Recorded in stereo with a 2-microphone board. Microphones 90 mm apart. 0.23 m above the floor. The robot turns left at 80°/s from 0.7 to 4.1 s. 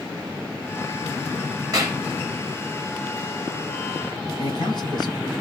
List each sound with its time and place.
1.7 s a clap: 45° right (ahead or behind), 3.5 m; by 2.0 s 25° right (ahead or behind), 3.5 m
4.4 s a man speaking: 55° left (ahead or behind), 1.9 m